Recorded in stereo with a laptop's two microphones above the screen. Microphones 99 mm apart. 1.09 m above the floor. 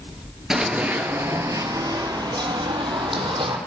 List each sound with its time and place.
0.5 s running footsteps: 5° right (ahead or behind), 1.1 m; by 3.6 s 60° right (ahead or behind), 2 m